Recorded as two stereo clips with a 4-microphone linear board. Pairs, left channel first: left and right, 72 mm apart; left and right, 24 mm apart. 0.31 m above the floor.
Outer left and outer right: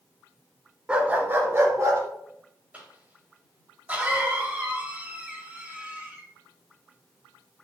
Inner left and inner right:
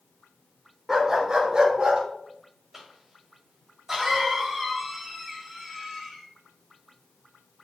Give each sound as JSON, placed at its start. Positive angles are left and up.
{"t": 0.9, "sound": "a dog barking", "side_deg": -15, "distance_m": 1.1}
{"t": 2.7, "sound": "a cough", "side_deg": -20, "distance_m": 1.7}